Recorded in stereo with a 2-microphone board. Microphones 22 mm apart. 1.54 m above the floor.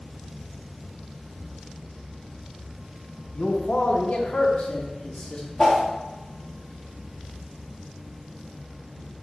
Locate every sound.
3.4 s a man speaking: 55° left (ahead or behind), 0.9 m; by 5.5 s 40° left (ahead or behind), 1.3 m
5.6 s a whoosh: 20° left (ahead or behind), 1.1 m